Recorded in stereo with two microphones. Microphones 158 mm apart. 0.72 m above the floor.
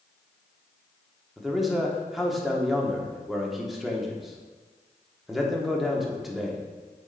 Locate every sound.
1.4 s a man speaking: centre (ahead or behind), 1.2 m